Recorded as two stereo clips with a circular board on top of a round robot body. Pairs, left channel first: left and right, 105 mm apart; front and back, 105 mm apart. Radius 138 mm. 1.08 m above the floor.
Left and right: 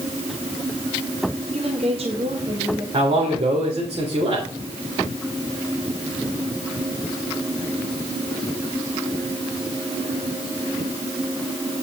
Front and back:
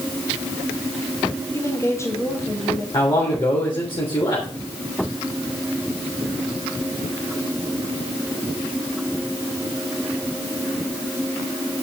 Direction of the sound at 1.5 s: 65° right.